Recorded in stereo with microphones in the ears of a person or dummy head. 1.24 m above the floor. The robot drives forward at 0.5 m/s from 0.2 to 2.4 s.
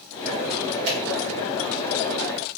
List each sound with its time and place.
0.9 s a finger snap: 60° right (ahead or behind), 1.5 m